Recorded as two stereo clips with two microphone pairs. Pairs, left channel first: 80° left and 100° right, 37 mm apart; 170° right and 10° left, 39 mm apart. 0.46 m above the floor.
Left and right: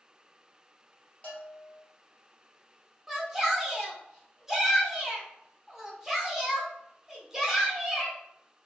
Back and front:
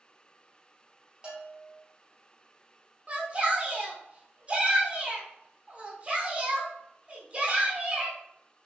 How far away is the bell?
About 1.1 m.